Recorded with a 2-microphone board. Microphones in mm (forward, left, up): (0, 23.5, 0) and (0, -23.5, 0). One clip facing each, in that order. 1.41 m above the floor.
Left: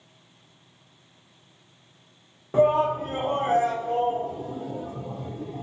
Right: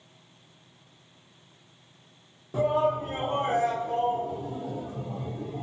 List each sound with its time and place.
2.5 s a shout: 45° left (ahead or behind), 0.5 m; by 5.6 s 50° left (ahead or behind), 1.6 m